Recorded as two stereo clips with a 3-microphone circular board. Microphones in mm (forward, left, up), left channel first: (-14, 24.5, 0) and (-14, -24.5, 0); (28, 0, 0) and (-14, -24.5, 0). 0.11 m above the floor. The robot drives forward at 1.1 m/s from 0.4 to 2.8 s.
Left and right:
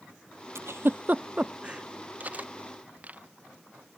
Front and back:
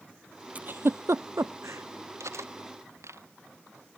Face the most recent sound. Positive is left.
turn(degrees=-150)